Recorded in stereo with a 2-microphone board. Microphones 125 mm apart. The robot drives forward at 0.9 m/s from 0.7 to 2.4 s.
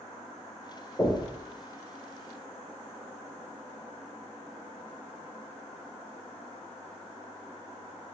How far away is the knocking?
About 1.7 m.